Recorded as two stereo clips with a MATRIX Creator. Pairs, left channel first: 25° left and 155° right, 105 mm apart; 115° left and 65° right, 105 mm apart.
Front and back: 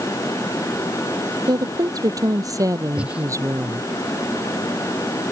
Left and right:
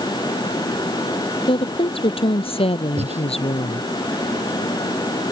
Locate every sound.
1.5 s a woman speaking: 150° left; by 3.9 s 140° left
3.0 s breathing: 80° right